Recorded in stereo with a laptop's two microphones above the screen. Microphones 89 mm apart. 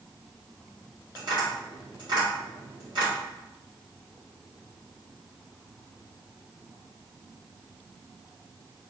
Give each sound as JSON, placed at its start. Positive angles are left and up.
{"t": 1.1, "sound": "tapping", "side_deg": -55, "distance_m": 1.6}